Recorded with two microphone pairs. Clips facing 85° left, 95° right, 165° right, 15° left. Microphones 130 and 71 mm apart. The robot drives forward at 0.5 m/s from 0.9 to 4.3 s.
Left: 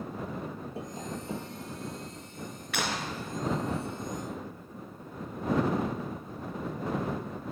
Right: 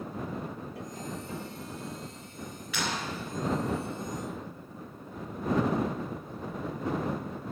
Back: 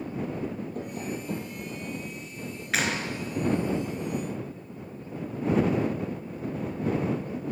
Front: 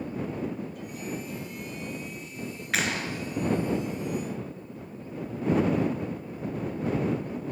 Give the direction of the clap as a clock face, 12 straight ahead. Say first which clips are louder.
Left 1 dB, back 1 dB; 8 o'clock.